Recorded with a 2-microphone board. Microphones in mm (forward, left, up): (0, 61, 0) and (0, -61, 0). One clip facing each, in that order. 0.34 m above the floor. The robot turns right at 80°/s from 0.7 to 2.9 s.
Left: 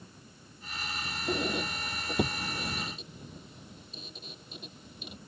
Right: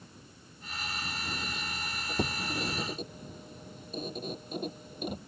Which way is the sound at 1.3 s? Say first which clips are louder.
Left 8 dB; 80° left.